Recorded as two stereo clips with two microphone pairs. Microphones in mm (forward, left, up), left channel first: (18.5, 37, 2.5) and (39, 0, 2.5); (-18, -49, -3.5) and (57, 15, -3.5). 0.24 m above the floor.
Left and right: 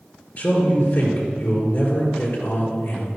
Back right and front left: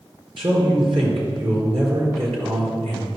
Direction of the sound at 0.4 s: 65° left.